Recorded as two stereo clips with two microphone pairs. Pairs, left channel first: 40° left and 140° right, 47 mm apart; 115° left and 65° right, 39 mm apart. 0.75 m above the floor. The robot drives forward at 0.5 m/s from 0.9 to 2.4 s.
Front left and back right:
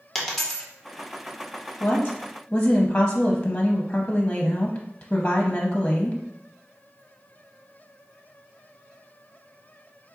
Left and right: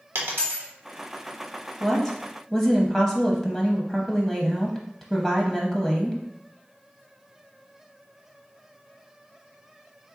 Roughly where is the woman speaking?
Ahead.